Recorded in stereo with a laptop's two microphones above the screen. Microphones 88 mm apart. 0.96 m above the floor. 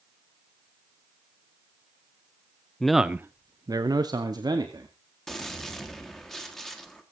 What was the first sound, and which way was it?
A man speaking, 10° left (ahead or behind).